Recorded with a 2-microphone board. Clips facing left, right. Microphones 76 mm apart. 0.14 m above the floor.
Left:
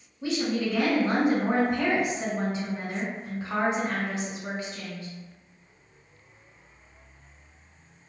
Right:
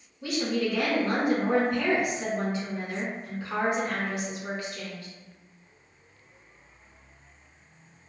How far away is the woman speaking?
About 1.1 m.